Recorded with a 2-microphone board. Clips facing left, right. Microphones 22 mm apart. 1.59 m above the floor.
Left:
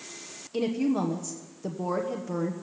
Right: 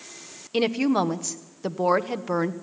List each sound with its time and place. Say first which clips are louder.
0.5 s a woman speaking: right 5 dB; 50° right (ahead or behind), 1.0 m